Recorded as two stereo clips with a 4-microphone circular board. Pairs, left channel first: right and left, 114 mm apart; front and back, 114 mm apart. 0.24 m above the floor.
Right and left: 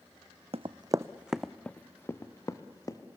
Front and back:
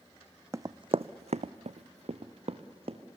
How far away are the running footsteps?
About 0.6 m.